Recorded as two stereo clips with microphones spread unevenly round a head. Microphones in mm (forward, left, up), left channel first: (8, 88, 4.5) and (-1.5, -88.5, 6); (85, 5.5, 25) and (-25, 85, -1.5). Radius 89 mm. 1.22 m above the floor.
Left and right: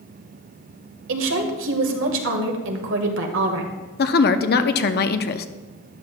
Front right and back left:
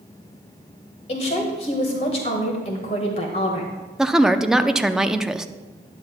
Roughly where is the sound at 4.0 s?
Ahead left.